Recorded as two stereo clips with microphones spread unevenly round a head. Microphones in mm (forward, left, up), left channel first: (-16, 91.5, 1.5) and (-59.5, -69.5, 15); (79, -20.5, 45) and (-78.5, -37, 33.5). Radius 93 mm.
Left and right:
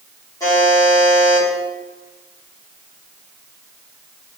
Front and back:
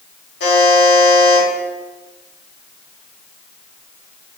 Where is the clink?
I don't hear a clink.